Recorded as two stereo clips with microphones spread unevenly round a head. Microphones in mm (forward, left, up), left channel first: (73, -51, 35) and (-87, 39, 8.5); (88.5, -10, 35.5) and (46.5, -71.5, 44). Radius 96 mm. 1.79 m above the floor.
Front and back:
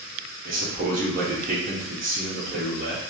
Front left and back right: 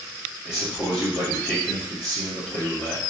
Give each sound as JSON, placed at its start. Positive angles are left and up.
{"t": 0.5, "sound": "a man speaking", "azimuth_deg": 150, "distance_m": 0.7}